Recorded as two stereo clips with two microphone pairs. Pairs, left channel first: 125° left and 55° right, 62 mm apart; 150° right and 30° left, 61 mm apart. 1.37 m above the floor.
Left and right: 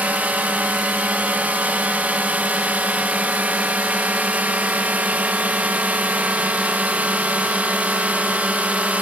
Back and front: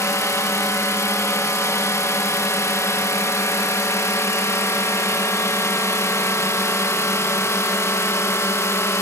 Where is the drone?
120° right.